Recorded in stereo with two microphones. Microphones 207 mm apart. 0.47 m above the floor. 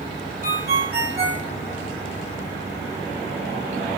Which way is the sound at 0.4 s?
50° right (ahead or behind).